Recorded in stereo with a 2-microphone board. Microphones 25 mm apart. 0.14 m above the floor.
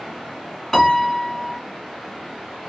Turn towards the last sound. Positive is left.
turn(degrees=20)  # may be behind; listen again after turning